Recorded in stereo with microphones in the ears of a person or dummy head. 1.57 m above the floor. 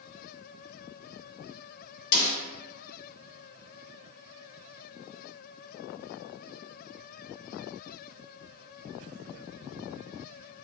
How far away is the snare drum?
About 1.5 m.